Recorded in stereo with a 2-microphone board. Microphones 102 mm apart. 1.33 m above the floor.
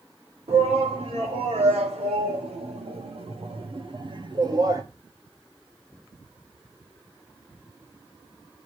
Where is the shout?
85° right, 3 m; by 4.8 s 35° right (ahead or behind), 1.2 m.